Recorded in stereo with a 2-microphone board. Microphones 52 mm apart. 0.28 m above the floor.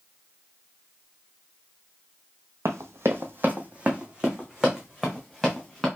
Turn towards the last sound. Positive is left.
turn(degrees=0)  # may be behind; listen again after turning